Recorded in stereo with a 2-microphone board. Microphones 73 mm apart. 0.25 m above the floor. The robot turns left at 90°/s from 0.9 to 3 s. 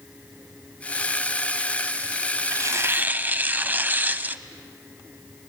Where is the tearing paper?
100° right, 0.5 m; by 4.4 s 145° right, 0.5 m.